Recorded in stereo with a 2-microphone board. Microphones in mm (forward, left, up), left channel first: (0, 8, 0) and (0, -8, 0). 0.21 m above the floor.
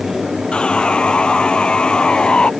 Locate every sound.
0.5 s sawing: 70° left (ahead or behind)